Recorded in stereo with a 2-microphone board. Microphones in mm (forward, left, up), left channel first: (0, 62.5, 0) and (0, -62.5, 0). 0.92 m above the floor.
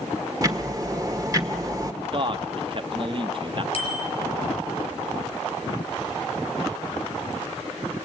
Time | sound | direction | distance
0.4 | ticking | 30° right (ahead or behind) | 1.3 m
2.0 | a man speaking | 45° right (ahead or behind) | 1.0 m
3.7 | a bicycle bell | 50° left (ahead or behind) | 5 m